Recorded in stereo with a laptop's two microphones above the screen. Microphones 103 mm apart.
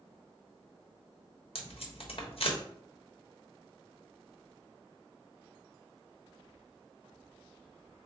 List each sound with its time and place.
1.6 s tape being pulled: 65° left (ahead or behind), 1.1 m